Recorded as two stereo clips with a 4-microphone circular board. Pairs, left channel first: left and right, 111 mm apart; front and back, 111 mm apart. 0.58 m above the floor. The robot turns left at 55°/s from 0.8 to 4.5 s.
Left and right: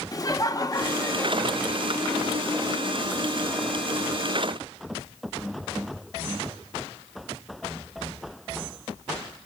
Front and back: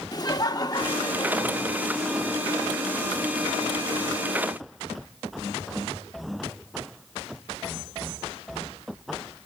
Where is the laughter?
45° left, 1.2 m; by 2.0 s 25° right, 1.2 m.